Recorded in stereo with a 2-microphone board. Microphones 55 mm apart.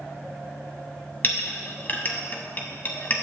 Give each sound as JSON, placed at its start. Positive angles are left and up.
{"t": 1.2, "sound": "a clink", "side_deg": 35, "distance_m": 0.8}